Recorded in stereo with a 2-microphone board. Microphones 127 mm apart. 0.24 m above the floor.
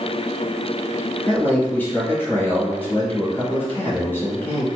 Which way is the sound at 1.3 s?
15° left (ahead or behind).